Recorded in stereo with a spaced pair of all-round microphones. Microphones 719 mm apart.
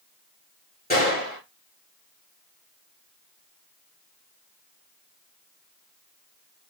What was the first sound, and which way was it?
A gunshot, 15° left (ahead or behind).